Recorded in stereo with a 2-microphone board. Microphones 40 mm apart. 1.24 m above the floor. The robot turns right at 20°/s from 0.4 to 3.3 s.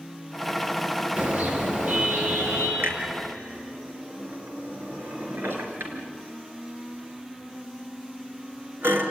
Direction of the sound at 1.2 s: 130° right.